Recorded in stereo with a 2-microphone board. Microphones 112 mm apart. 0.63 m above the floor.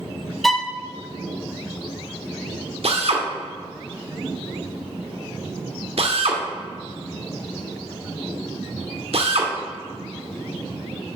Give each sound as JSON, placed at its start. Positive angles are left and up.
{"t": 0.4, "sound": "a violin", "side_deg": 0, "distance_m": 0.7}
{"t": 2.8, "sound": "a drill", "side_deg": -65, "distance_m": 1.6}